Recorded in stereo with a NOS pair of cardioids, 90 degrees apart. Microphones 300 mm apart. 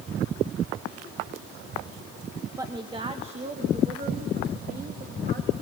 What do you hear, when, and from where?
2.6 s a woman speaking: 10° right, 1.2 m; by 5.5 s 35° right, 2.5 m